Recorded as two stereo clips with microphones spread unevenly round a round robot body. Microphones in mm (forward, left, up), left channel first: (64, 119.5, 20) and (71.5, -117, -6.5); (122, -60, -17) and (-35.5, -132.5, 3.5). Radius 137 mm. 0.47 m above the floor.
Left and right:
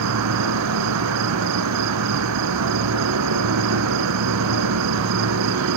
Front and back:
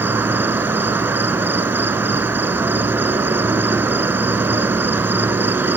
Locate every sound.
0.0 s an insect: 80° right, 0.9 m